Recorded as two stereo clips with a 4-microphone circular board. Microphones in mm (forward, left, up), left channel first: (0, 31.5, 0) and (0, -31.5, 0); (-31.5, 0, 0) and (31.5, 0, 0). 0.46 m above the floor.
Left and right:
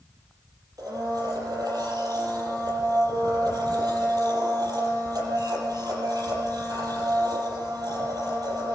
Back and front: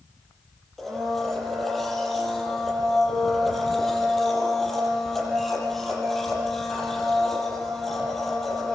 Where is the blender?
95° right, 6.5 m.